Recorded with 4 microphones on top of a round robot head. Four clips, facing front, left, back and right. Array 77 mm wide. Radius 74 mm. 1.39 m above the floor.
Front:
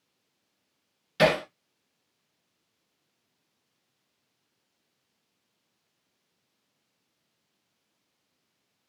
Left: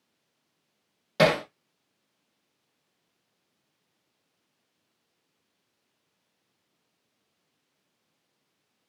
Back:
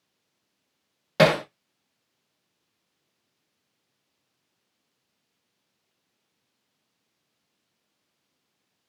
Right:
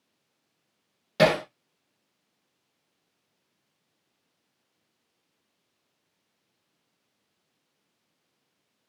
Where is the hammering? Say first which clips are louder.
Right 1 dB, back 3 dB; 175° right, 0.6 m.